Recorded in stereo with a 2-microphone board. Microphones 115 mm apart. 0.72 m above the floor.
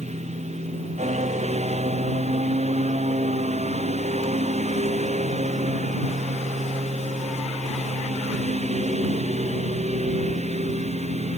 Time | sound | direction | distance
0.0 | a lawn mower | 80° right | ?